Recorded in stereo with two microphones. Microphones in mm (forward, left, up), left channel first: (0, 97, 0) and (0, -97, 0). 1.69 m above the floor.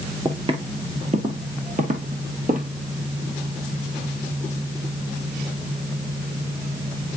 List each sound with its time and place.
0.2 s footsteps: 25° right (ahead or behind), 1.8 m; by 2.7 s 45° right (ahead or behind), 2.5 m